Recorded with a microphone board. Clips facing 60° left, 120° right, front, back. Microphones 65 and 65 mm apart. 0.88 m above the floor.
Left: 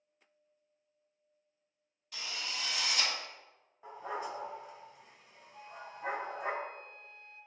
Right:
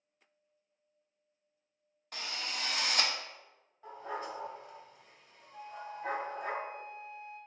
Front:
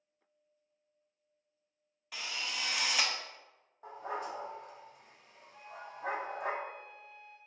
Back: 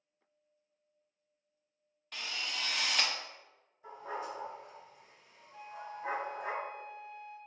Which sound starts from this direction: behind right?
A flute, at 5.5 s.